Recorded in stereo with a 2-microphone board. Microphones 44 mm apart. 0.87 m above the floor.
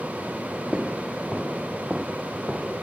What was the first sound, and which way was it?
Footsteps, 15° right (ahead or behind).